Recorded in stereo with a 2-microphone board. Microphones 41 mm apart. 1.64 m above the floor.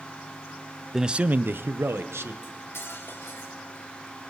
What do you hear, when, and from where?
0.9 s a man speaking: 5° right (ahead or behind), 0.7 m; by 2.3 s 75° right (ahead or behind), 1.8 m
2.4 s cutlery clinking: 70° left (ahead or behind), 3 m